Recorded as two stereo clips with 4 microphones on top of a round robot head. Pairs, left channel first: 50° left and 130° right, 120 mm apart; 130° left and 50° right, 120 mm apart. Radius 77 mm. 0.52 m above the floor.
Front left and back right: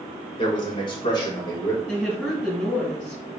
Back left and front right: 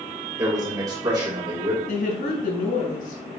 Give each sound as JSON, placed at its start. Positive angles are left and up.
{"t": 0.4, "sound": "a man speaking", "azimuth_deg": 10, "distance_m": 3.0}
{"t": 1.9, "sound": "a woman speaking", "azimuth_deg": 130, "distance_m": 4.5}